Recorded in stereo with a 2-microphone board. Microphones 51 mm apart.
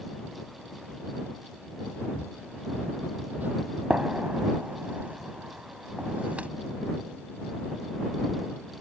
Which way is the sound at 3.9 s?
30° right (ahead or behind).